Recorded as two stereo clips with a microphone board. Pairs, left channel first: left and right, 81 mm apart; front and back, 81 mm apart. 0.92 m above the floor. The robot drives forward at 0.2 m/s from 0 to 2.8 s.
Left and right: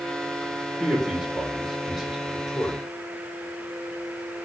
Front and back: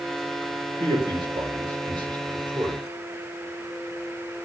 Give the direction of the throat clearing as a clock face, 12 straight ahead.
I don't hear throat clearing.